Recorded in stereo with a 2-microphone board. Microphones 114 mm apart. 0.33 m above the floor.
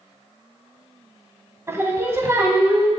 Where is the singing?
25° right (ahead or behind), 0.9 m.